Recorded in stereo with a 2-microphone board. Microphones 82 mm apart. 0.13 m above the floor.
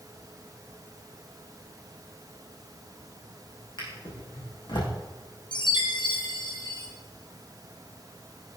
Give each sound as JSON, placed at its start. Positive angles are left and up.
{"t": 3.8, "sound": "a drawer", "side_deg": 70, "distance_m": 4.0}
{"t": 5.5, "sound": "a chime", "side_deg": 65, "distance_m": 3.0}